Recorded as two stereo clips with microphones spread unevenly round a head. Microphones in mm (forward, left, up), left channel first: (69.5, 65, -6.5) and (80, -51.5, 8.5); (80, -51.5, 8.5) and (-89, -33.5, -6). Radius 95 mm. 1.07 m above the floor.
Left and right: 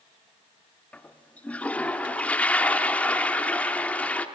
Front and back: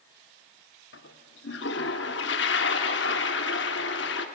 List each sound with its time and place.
0.9 s a toilet flushing: 15° left, 1.4 m